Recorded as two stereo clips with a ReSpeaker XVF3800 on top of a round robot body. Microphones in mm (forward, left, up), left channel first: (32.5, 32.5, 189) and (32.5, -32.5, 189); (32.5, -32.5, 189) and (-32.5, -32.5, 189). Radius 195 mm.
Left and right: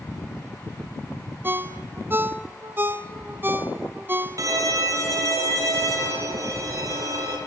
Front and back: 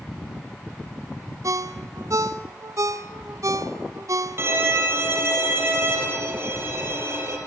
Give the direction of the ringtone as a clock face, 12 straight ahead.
5 o'clock.